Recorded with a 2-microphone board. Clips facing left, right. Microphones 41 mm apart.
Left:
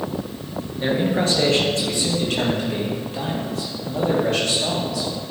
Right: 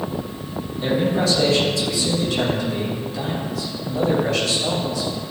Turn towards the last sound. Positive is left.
turn(degrees=70)  # may be behind; listen again after turning